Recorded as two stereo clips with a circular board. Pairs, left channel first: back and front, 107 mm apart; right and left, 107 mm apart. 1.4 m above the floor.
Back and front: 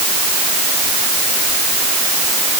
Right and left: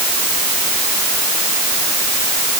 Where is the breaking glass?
I don't hear breaking glass.